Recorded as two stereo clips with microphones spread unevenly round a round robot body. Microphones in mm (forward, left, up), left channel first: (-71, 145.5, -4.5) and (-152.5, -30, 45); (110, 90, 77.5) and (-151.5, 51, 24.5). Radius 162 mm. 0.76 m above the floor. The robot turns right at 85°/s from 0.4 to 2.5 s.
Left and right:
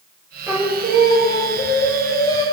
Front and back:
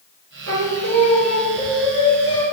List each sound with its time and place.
0.5 s singing: 165° left, 1.7 m; by 2.4 s 30° right, 1.7 m